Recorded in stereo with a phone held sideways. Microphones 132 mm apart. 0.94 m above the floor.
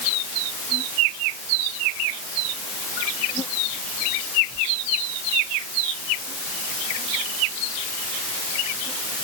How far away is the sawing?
No sawing in this recording.